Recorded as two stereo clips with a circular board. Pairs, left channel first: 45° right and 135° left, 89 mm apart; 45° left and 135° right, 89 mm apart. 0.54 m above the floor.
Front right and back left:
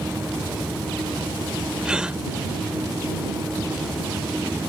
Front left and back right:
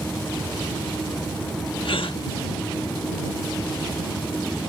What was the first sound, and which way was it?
A gasp, 55° left.